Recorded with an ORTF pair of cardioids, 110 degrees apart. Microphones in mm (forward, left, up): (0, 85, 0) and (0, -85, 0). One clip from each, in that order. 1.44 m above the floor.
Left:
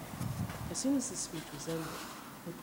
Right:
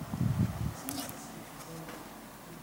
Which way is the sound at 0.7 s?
65° left.